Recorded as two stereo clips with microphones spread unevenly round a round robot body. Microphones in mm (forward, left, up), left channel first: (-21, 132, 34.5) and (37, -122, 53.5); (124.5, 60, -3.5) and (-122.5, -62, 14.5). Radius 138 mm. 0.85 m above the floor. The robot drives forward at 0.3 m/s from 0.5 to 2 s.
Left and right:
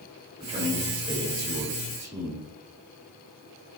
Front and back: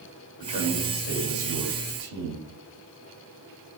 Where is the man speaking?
150° right, 1.4 m; by 2.4 s 155° right, 1.8 m.